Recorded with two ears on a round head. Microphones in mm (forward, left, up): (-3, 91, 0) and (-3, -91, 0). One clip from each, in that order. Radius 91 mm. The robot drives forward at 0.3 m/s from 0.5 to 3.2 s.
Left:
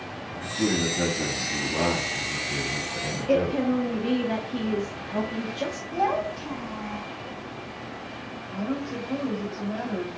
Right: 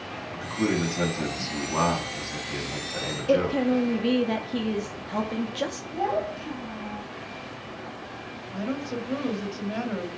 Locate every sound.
0.3 s a man speaking: 80° right, 3 m; by 3.6 s 65° right (ahead or behind), 3 m
3.3 s a woman speaking: 25° right (ahead or behind), 0.7 m
5.9 s a child speaking: 35° left (ahead or behind), 2.5 m
8.5 s a woman speaking: 45° right (ahead or behind), 1.5 m